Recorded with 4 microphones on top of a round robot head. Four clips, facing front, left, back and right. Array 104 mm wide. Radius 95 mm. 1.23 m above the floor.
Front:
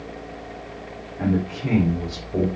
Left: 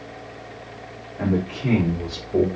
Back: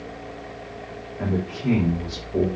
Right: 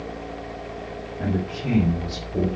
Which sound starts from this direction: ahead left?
A man speaking, at 1.2 s.